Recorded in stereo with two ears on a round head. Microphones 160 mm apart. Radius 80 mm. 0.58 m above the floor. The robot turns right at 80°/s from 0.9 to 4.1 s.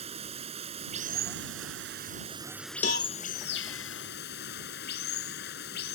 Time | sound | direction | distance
0.0 | running water | 145° right | ?
2.8 | a cowbell | 40° left (ahead or behind) | ?